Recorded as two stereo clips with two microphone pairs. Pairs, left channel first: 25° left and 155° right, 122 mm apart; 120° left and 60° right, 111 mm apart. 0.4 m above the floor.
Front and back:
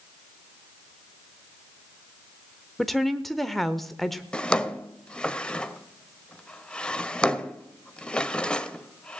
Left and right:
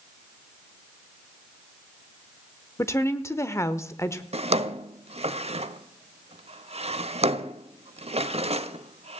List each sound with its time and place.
2.8 s a woman speaking: 110° left, 0.8 m
4.3 s a drawer: 60° right, 0.6 m